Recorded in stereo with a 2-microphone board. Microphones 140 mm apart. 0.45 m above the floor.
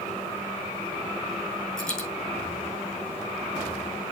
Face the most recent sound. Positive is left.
turn(degrees=5)  # may be behind; listen again after turning